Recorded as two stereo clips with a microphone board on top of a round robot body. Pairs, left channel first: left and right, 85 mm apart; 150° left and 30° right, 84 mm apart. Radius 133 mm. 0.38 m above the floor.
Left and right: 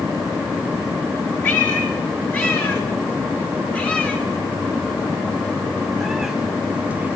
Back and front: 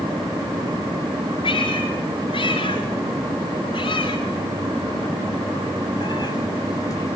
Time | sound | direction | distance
1.4 | a cat meowing | 155° left | 4 m